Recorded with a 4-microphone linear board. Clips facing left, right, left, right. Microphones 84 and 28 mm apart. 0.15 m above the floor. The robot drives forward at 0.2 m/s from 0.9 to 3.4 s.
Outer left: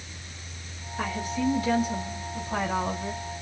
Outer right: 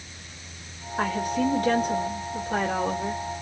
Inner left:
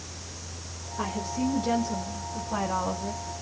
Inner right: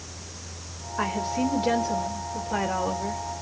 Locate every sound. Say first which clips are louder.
1.0 s a woman speaking: outer right 4 dB, inner right 4 dB; 60° right (ahead or behind), 2 m; by 3.2 s 55° right (ahead or behind), 2.5 m